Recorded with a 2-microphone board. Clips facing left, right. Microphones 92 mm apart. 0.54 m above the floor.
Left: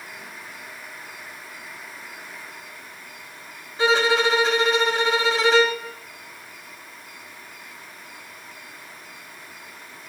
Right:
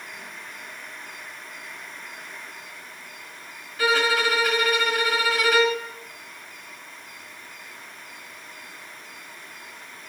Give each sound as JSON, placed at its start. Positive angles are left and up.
{"t": 3.8, "sound": "a violin", "side_deg": 25, "distance_m": 2.0}